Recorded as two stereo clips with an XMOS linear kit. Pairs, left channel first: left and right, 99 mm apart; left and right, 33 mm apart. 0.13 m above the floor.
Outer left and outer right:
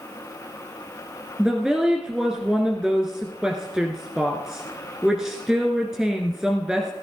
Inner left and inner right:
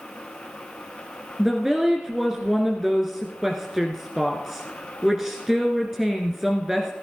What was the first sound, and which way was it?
A woman speaking, 5° right (ahead or behind).